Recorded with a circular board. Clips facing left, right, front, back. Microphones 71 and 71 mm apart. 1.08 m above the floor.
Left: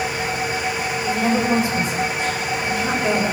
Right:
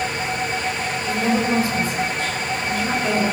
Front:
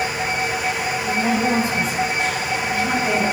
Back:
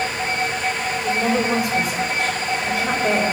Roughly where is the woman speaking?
Behind.